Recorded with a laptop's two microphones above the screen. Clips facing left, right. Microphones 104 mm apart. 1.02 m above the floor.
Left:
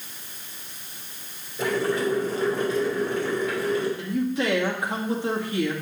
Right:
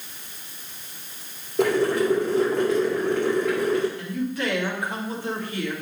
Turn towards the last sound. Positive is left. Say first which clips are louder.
# left 2 dB
turn(degrees=25)  # may be behind; listen again after turning